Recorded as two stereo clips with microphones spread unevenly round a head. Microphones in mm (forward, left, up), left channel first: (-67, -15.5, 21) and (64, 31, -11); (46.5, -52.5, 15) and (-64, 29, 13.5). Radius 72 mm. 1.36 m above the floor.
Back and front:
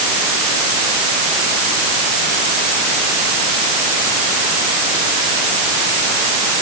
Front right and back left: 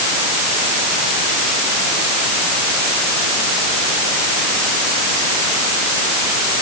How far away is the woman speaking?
I don't hear a woman speaking.